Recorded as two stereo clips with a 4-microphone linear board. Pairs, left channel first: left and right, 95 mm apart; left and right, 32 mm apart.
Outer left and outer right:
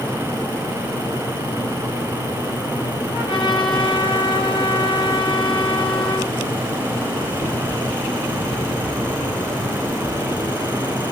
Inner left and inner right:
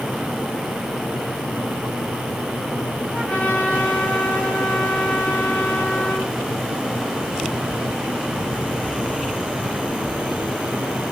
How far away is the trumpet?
About 8 m.